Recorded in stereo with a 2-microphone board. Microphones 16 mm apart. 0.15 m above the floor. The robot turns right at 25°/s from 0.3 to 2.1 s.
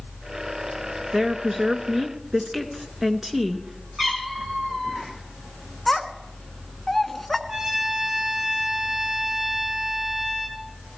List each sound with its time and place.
1.1 s a woman speaking: 35° right (ahead or behind), 1.5 m; by 3.9 s 20° right (ahead or behind), 1.5 m
4.0 s a cat meowing: 35° right (ahead or behind), 3 m
5.9 s a child speaking: 15° left (ahead or behind), 1.0 m
7.5 s a trumpet: 55° right (ahead or behind), 8.5 m